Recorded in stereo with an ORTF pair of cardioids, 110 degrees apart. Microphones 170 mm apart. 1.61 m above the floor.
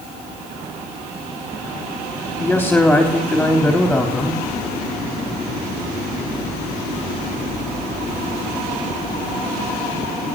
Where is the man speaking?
5° left, 3.5 m.